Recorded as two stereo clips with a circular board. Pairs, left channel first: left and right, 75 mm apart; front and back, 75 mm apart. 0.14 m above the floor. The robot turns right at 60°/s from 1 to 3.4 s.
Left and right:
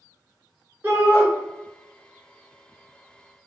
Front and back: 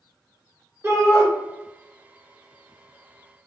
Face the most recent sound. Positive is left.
turn(degrees=-5)